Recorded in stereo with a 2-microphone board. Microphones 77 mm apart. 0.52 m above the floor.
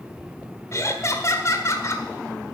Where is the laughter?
40° left (ahead or behind), 1.5 m.